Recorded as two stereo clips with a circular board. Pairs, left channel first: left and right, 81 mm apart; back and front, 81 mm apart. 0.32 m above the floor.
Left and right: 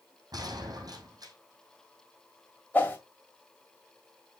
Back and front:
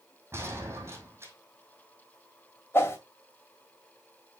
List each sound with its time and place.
0.3 s a gunshot: 55° right, 2.5 m
2.7 s a whoosh: 145° left, 1.7 m